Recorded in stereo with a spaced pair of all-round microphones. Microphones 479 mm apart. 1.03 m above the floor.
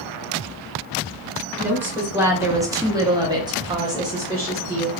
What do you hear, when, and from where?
1.6 s a woman speaking: 5° right (ahead or behind), 1.1 m